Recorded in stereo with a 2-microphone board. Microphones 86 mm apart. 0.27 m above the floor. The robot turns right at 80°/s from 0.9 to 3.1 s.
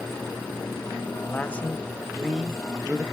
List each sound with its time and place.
1.3 s a man speaking: 20° left (ahead or behind), 0.9 m; by 3.0 s 20° right (ahead or behind), 0.9 m